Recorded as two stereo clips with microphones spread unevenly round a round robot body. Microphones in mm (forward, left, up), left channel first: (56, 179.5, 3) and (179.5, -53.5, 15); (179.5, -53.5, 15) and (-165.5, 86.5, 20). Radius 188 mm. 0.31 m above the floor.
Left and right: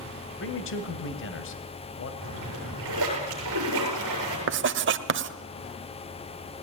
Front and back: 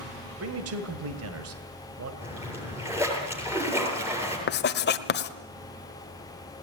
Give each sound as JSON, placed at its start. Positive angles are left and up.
{"t": 0.4, "sound": "a man speaking", "azimuth_deg": 120, "distance_m": 2.0}
{"t": 2.2, "sound": "a splash", "azimuth_deg": -120, "distance_m": 7.5}
{"t": 4.5, "sound": "writing", "azimuth_deg": -70, "distance_m": 1.2}